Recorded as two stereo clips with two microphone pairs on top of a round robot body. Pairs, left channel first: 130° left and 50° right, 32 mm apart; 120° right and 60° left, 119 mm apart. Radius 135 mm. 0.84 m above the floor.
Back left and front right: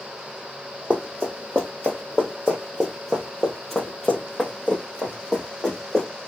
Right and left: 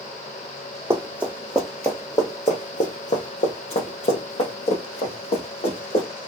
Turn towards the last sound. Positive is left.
turn(degrees=-160)